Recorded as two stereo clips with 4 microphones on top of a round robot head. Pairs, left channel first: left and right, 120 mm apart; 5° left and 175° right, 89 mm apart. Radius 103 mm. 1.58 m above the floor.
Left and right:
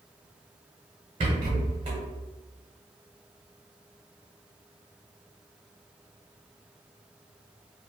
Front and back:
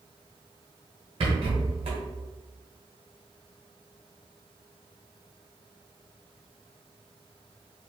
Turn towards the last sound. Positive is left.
turn(degrees=-140)